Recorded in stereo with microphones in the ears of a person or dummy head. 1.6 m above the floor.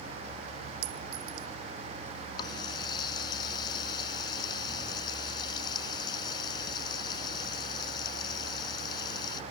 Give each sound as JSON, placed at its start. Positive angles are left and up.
{"t": 0.8, "sound": "a clink", "side_deg": -75}
{"t": 2.4, "sound": "a running tap", "side_deg": 25}